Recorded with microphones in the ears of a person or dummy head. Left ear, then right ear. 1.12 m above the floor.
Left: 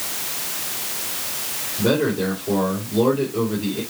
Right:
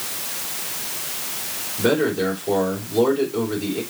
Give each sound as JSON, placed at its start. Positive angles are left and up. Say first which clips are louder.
{"t": 1.8, "sound": "a man speaking", "louder": "right 1 dB", "side_deg": -50, "distance_m": 3.5}